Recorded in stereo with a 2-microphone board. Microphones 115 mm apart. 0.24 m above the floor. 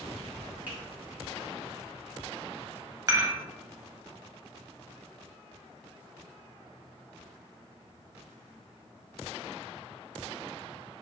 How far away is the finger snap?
About 1.7 m.